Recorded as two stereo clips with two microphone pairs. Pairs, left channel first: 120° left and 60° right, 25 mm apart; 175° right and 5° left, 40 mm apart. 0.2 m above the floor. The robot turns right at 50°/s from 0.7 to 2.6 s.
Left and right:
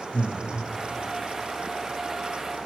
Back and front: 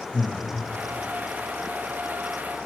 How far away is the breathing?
About 0.7 m.